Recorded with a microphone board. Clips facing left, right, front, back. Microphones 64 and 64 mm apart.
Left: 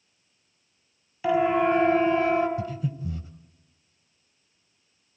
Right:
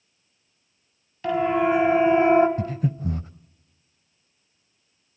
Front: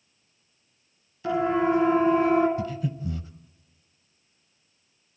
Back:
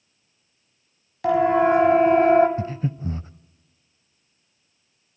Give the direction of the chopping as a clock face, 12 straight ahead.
No chopping in this recording.